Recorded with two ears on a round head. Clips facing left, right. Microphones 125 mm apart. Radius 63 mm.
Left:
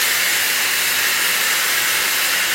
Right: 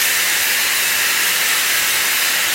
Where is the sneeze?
I don't hear a sneeze.